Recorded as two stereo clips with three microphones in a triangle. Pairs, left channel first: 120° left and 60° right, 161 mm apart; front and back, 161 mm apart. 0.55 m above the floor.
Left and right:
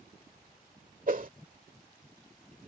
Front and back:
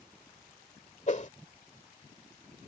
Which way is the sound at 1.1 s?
35° right.